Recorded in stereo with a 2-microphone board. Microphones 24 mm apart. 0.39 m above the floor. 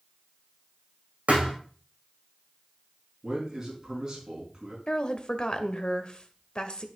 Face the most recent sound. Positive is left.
turn(degrees=45)  # may be behind; listen again after turning